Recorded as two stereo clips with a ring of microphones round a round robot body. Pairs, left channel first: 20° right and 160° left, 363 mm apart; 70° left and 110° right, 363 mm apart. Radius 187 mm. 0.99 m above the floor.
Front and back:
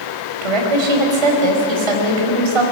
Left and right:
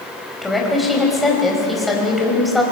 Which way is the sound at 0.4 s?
160° left.